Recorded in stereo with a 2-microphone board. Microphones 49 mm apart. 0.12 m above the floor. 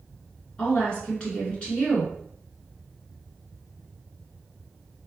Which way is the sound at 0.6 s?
25° left (ahead or behind).